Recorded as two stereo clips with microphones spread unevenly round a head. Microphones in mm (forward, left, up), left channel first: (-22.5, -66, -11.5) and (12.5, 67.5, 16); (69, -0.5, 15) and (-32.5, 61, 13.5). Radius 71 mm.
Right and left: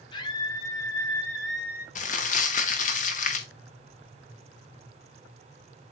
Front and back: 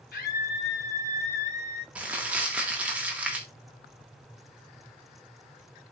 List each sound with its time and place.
0.1 s a scream: 45° right, 1.5 m; by 1.9 s straight ahead, 0.7 m
1.9 s crumpling: 130° right, 1.9 m